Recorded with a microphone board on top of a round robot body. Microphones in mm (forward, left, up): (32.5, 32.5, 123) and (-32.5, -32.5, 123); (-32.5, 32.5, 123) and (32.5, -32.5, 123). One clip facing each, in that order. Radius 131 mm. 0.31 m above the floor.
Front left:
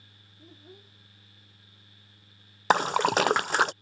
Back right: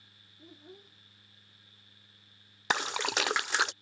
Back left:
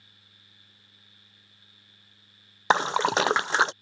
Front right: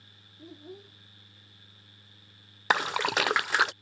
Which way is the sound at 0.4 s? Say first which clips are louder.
Front left 1 dB, front right 19 dB; 45° right.